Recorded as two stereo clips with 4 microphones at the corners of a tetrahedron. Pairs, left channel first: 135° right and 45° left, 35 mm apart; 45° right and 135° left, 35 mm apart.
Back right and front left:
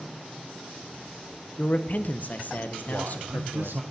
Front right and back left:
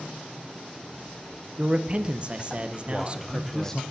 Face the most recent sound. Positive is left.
turn(degrees=30)